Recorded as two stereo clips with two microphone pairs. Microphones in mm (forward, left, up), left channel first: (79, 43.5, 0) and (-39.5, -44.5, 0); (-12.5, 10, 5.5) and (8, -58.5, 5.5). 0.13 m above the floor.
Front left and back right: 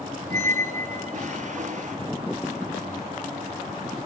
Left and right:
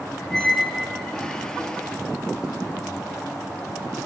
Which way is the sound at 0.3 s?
170° right.